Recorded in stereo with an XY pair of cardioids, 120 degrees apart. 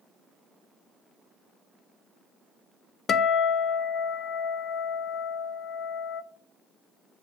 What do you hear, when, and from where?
3.1 s a guitar: 45° left, 0.7 m